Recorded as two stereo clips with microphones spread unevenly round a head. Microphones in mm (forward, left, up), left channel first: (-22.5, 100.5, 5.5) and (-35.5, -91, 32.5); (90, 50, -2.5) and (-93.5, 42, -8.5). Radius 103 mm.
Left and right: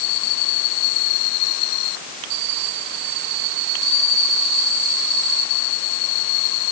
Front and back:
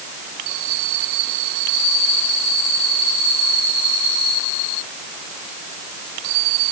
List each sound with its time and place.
Only background noise.